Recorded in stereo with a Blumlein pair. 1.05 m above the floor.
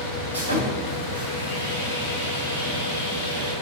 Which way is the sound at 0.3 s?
70° right.